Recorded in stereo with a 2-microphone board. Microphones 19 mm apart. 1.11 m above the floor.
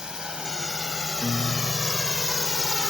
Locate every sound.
0.0 s a drone: 45° right (ahead or behind); by 2.9 s 35° right (ahead or behind)
1.2 s a guitar: 70° right (ahead or behind)